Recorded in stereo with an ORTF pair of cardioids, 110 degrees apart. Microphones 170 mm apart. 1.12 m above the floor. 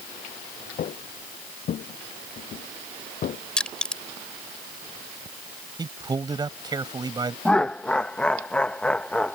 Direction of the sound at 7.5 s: 5° left.